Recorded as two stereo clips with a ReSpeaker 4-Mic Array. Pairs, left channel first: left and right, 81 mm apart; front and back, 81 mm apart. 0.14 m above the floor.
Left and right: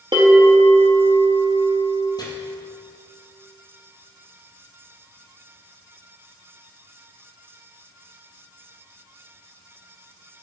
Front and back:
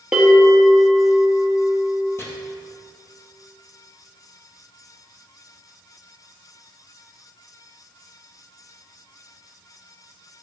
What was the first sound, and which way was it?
A bell, 105° right.